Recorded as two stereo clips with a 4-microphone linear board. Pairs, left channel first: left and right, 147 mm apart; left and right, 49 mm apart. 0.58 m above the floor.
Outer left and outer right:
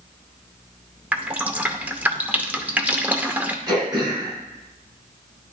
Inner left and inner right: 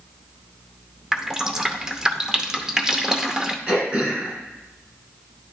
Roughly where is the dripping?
Centre.